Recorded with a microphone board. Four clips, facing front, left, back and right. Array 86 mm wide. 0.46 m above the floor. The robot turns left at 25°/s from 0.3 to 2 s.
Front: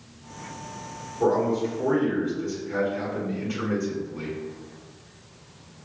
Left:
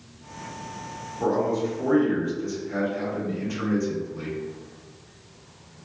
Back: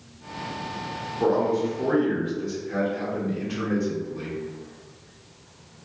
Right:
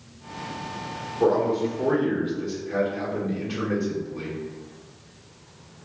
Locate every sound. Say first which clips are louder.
1.2 s a man speaking: right 3 dB, even; 95° right, 1.3 m; by 4.3 s 115° right, 1.3 m